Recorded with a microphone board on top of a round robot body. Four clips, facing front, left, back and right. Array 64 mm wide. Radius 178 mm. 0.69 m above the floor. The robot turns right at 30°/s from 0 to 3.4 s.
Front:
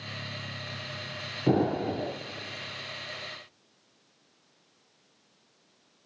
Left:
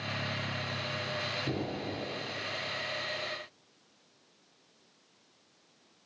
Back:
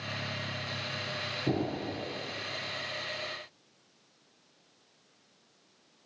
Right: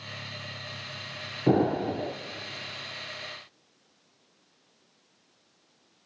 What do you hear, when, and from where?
1.5 s an explosion: 65° right, 0.6 m; by 2.1 s 45° right, 0.6 m